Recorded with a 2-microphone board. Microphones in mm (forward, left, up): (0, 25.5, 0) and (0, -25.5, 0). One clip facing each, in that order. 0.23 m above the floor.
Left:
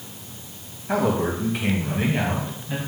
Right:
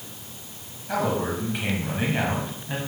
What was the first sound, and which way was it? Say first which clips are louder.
A man speaking: left 3 dB; 20° left (ahead or behind).